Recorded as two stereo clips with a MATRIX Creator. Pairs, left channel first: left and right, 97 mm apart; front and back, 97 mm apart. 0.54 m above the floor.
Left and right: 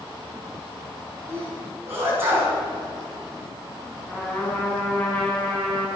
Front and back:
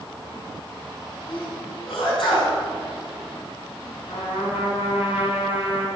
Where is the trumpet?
10° left, 4.5 m.